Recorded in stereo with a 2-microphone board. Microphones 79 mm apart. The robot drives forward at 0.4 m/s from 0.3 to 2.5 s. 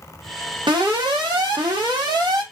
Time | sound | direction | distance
0.7 | an alarm | 80° right | 1.1 m